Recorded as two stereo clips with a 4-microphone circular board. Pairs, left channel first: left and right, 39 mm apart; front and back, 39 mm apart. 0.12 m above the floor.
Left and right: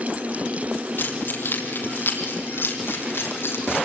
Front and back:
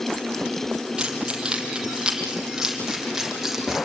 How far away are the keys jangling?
About 3 m.